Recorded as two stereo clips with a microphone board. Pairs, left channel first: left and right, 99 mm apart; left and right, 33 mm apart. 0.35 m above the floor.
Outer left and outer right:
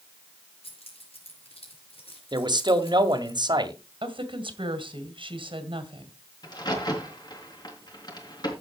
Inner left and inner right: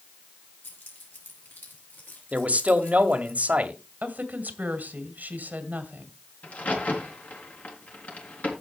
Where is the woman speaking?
60° right (ahead or behind), 2.5 m.